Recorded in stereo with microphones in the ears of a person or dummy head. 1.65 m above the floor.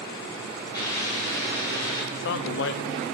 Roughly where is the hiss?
Left.